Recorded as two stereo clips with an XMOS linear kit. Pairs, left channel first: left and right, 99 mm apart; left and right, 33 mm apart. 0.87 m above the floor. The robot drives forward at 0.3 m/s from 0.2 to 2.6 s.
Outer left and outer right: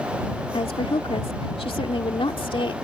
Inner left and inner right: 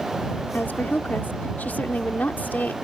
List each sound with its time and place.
0.5 s a woman speaking: 70° left (ahead or behind); by 2.7 s 60° left (ahead or behind)